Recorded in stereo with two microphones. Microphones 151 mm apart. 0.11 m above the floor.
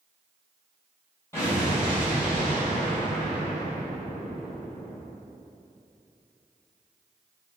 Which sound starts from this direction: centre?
An explosion, at 1.3 s.